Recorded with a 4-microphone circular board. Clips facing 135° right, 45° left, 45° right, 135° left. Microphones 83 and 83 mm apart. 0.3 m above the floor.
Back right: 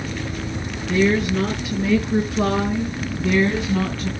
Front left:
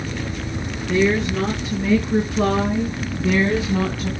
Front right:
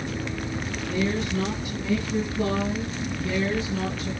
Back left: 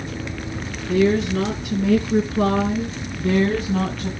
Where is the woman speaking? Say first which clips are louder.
Even, back left 9 dB; 135° left, 5 m; by 4.1 s 125° left, 3 m.